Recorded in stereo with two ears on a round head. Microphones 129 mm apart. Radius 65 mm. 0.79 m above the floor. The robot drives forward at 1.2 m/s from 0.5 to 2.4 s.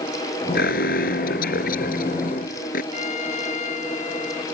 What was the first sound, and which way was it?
An alarm, 75° left (ahead or behind).